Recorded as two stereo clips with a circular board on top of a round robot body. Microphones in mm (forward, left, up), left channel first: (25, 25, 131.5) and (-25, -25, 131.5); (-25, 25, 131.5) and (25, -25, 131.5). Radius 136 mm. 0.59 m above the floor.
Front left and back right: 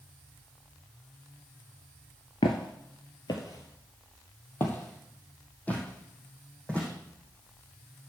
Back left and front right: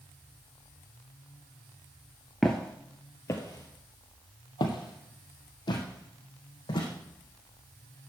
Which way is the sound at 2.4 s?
45° left.